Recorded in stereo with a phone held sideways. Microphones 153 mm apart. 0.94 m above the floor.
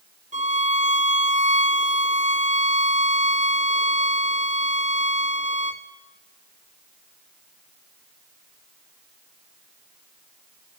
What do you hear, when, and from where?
0.3 s a violin: 50° right (ahead or behind), 1.2 m